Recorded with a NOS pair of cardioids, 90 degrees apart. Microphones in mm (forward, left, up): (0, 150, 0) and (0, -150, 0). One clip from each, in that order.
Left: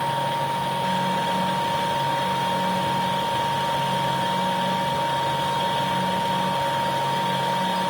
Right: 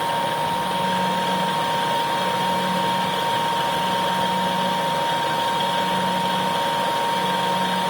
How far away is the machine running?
About 2.5 m.